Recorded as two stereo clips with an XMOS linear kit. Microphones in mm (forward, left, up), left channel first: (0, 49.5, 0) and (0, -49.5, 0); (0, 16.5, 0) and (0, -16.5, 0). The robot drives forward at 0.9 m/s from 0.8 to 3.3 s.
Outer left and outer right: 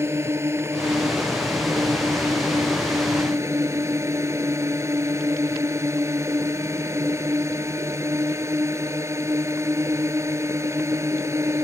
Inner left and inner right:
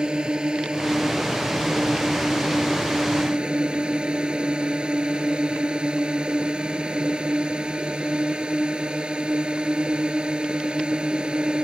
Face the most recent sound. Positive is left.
turn(degrees=-30)  # may be behind; listen again after turning